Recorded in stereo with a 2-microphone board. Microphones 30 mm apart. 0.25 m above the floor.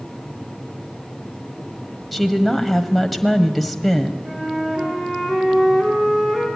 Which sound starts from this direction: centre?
A woman speaking, at 2.1 s.